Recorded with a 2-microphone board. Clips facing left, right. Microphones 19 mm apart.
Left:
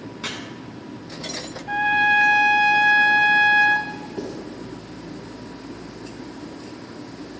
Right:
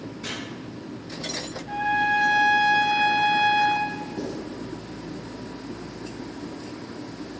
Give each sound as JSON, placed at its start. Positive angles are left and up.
{"t": 0.2, "sound": "chopping", "side_deg": 70, "distance_m": 1.4}
{"t": 1.7, "sound": "a trumpet", "side_deg": 70, "distance_m": 0.7}
{"t": 4.2, "sound": "writing", "side_deg": 75, "distance_m": 1.8}